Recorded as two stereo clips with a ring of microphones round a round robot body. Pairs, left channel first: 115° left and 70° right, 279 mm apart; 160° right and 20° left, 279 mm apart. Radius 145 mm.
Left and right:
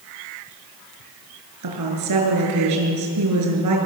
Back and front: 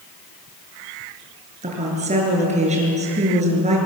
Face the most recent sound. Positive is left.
turn(degrees=-45)